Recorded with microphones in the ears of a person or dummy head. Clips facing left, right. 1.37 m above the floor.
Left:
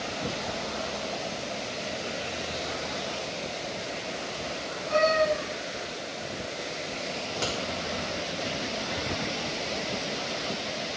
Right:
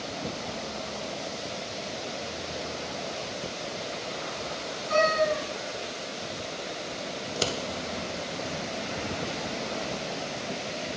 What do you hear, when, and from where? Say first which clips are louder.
4.9 s a cat meowing: left 1 dB; 70° right (ahead or behind), 4.5 m
7.2 s scissors: right 3 dB; 45° right (ahead or behind), 1.3 m